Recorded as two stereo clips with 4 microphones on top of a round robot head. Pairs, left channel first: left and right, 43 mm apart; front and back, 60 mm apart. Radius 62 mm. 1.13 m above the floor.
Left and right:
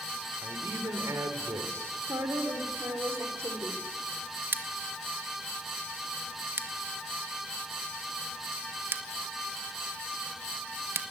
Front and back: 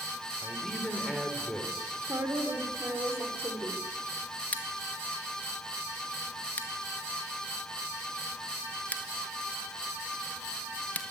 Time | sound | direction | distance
0.4 | a man speaking | 90° right | 3.5 m
2.0 | a woman speaking | 120° right | 3.5 m
4.5 | scissors | 70° right | 1.8 m